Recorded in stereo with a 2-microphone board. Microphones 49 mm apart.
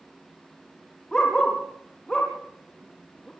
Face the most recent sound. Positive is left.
turn(degrees=15)  # may be behind; listen again after turning